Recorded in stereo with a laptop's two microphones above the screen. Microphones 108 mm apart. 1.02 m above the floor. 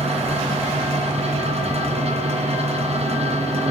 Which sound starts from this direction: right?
A fan, at 0.0 s.